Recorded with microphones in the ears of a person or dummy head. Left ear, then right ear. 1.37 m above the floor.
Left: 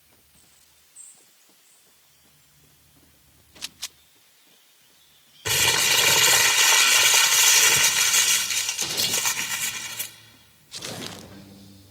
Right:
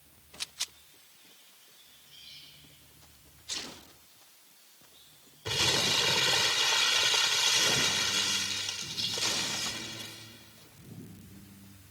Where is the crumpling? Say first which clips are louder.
Left 7 dB; 55° left (ahead or behind), 0.9 m.